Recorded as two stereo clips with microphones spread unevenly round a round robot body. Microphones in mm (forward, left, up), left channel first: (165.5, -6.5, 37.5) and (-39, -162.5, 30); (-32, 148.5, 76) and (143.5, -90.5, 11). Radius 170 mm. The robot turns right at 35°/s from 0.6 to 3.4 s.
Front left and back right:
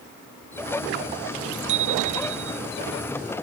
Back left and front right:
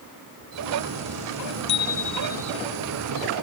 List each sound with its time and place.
1.7 s a bicycle bell: 175° right; by 2.6 s 145° right